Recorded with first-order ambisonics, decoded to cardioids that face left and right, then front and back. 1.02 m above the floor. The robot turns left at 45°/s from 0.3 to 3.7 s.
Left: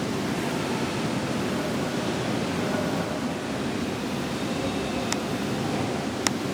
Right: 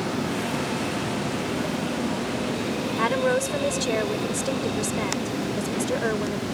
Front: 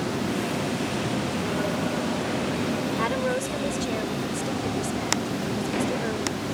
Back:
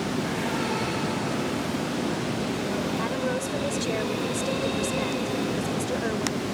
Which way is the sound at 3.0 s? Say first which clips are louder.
Right 8 dB, front 2 dB; 65° right.